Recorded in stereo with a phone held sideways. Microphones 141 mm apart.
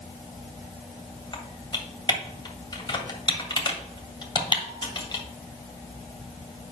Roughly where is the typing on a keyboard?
Left.